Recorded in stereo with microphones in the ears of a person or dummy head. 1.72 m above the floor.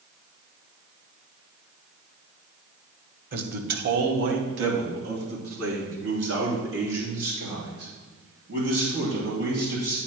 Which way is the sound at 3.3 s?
45° right (ahead or behind).